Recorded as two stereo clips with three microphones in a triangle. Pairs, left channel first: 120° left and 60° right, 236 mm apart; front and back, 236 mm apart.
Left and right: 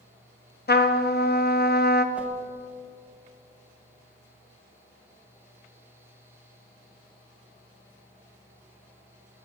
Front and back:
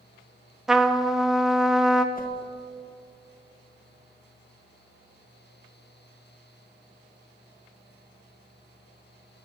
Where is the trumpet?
90° left, 0.7 m.